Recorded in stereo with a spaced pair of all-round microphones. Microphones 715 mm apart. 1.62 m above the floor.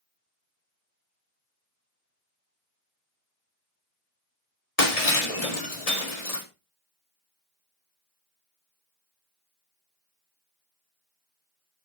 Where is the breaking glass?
60° left (ahead or behind), 1.8 m.